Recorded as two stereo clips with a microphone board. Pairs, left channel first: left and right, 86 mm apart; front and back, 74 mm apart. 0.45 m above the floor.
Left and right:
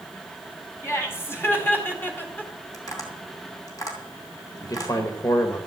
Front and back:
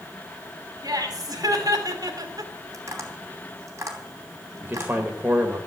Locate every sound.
0.8 s laughter: 145° left, 4 m; by 2.5 s 160° left, 2 m
2.7 s tapping: 135° left, 3 m
4.6 s a man speaking: 125° left, 1.7 m